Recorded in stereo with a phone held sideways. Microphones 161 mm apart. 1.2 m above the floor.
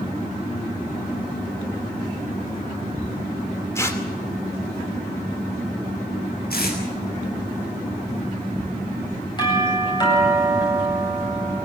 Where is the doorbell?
25° left (ahead or behind), 9 m.